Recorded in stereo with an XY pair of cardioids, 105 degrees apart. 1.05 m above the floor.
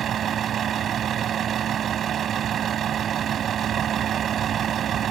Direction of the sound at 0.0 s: 55° right.